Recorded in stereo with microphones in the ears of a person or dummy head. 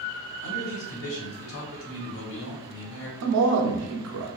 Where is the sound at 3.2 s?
85° right, 0.6 m.